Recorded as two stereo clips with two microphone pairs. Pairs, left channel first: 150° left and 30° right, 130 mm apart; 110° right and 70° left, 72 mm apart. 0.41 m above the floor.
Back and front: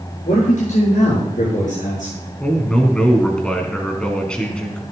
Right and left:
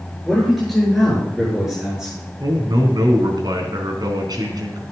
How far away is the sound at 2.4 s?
About 3.5 m.